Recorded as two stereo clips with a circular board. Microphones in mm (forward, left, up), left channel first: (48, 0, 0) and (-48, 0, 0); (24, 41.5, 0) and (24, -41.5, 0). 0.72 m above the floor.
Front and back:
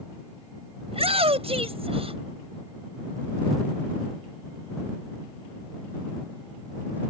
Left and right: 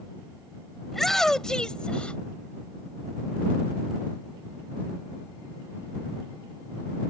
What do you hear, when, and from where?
0.9 s a shout: straight behind; by 2.2 s 165° left